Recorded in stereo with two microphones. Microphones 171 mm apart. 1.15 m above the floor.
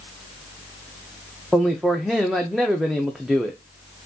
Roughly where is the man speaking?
Centre.